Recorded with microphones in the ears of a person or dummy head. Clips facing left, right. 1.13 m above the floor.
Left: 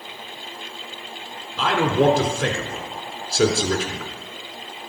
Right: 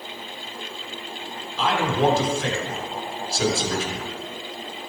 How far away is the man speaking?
About 4 m.